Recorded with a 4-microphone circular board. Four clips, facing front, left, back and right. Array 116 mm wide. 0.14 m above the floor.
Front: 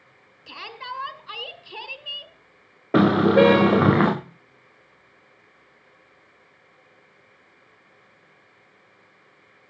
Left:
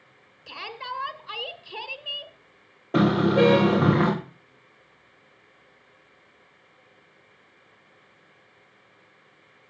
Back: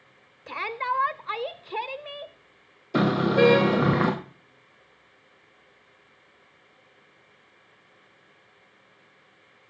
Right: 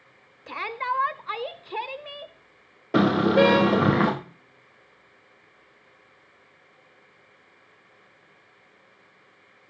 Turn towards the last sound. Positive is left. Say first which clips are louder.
# right 1 dB, front 5 dB
turn(degrees=-10)